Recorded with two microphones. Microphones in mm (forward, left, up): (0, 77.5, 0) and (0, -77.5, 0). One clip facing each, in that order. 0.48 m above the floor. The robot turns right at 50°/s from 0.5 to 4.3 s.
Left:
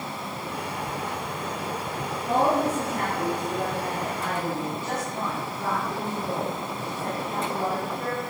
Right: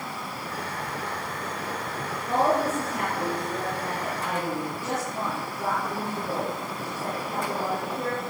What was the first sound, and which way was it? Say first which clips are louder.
A woman speaking: left 1 dB; 95° left.